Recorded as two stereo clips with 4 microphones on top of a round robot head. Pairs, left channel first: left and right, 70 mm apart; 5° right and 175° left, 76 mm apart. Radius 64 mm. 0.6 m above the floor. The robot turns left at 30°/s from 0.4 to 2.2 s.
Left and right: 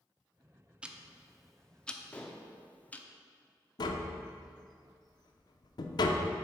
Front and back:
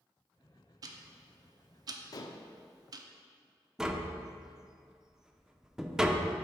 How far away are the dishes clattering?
About 0.5 m.